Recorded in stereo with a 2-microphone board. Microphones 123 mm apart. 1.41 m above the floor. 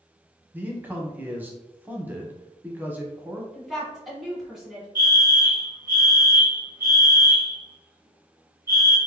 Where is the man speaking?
15° right (ahead or behind), 0.8 m.